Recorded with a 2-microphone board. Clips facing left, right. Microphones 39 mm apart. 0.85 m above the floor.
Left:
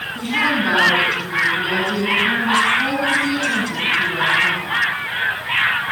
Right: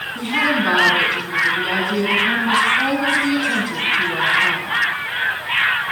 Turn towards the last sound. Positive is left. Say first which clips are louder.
# even
turn(degrees=-20)  # may be behind; listen again after turning